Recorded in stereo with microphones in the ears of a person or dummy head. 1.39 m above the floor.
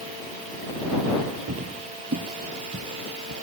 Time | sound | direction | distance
1.5 | footsteps | 40° right (ahead or behind) | ?